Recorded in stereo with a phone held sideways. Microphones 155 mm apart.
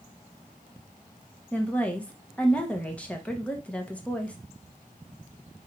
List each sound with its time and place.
1.5 s a woman speaking: 10° left (ahead or behind), 1.0 m